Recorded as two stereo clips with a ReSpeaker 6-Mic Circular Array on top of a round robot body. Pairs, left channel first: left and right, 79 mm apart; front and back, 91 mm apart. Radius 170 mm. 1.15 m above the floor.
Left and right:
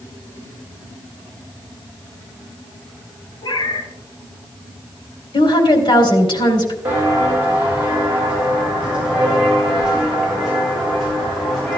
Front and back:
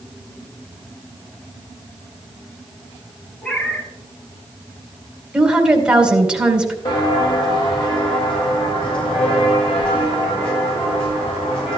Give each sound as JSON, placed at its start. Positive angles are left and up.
{"t": 3.4, "sound": "a cat meowing", "azimuth_deg": 75, "distance_m": 5.0}
{"t": 5.3, "sound": "a woman speaking", "azimuth_deg": 100, "distance_m": 2.5}
{"t": 6.8, "sound": "footsteps", "azimuth_deg": -30, "distance_m": 4.5}